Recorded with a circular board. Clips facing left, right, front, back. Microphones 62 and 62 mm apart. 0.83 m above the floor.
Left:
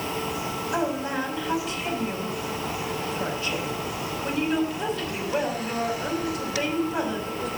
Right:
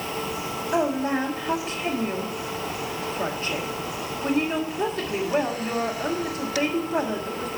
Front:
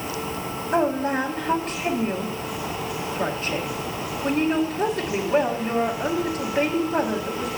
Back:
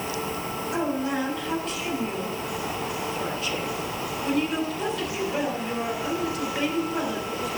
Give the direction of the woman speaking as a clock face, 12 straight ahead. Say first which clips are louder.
Right 4 dB, front 5 dB; 2 o'clock.